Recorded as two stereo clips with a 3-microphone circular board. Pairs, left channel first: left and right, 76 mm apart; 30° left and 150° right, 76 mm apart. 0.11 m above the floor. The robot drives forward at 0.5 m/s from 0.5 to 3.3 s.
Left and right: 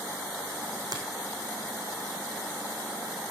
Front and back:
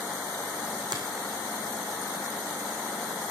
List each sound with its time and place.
0.9 s a finger snap: 125° right, 4.5 m